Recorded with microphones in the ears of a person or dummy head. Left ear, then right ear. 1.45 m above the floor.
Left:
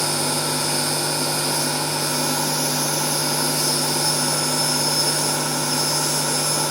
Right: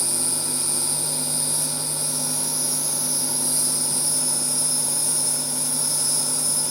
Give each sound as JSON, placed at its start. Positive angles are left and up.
{"t": 0.0, "sound": "an insect", "side_deg": -50, "distance_m": 1.9}